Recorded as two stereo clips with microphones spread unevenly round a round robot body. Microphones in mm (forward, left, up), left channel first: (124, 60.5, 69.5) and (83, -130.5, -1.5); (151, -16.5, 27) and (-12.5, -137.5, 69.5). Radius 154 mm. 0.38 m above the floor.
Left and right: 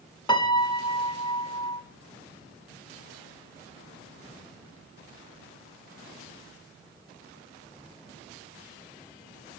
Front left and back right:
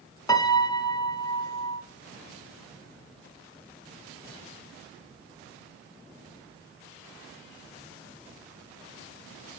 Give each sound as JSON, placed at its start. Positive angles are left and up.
{"t": 0.3, "sound": "a piano", "azimuth_deg": -10, "distance_m": 0.8}